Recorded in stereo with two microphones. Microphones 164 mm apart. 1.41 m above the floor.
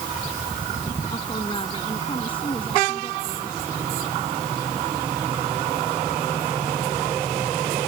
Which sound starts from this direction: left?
A woman speaking, at 1.1 s.